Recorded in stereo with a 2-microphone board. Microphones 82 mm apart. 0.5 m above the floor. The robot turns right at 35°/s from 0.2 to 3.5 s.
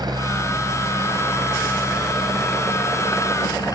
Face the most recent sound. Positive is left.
turn(degrees=45)  # may be behind; listen again after turning